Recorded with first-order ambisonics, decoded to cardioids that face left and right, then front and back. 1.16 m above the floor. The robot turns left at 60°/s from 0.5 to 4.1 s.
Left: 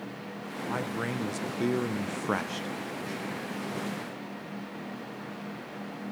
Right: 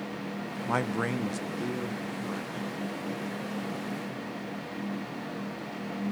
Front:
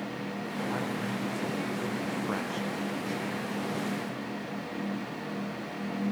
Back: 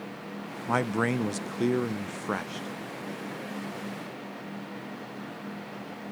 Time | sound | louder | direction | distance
0.7 | a man speaking | right 4 dB, back 9 dB | 150° right | 0.6 m